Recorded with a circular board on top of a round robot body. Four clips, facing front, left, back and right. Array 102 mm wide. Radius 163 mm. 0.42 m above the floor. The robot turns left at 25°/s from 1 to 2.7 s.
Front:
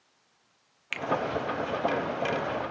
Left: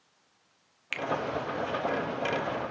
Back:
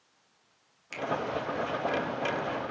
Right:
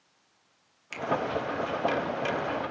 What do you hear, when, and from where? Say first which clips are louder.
0.9 s a finger snap: left 1 dB, even; 40° left, 1.1 m; by 1.1 s 35° left, 1.1 m